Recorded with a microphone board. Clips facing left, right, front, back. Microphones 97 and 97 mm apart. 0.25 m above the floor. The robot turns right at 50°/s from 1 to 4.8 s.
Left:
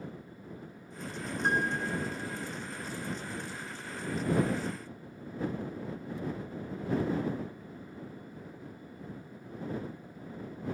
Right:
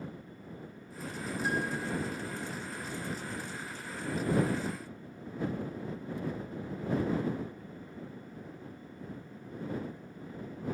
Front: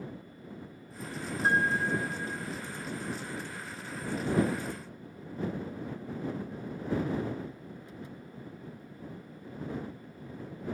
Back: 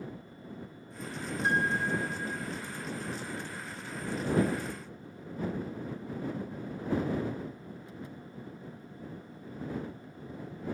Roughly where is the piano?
Ahead left.